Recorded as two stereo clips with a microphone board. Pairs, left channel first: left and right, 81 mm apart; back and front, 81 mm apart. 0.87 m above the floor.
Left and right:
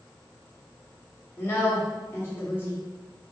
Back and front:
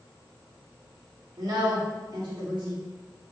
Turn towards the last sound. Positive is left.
turn(degrees=30)